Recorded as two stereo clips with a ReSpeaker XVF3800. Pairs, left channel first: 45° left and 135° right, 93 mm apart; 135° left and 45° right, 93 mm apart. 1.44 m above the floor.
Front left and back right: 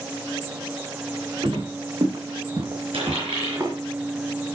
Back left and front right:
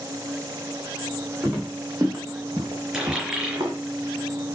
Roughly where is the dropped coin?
Behind right.